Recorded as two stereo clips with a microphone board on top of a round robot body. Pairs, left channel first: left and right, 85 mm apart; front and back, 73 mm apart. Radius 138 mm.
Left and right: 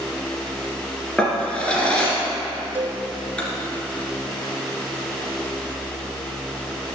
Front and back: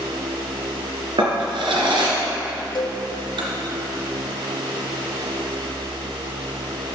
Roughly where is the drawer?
Behind.